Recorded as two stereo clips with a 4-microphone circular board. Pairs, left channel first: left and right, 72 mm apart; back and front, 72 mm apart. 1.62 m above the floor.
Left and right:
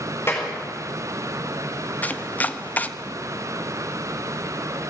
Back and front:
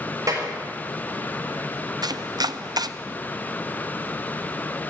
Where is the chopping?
20° left, 0.5 m.